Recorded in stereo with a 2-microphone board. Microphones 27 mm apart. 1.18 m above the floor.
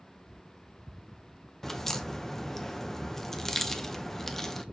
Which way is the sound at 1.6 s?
15° left (ahead or behind).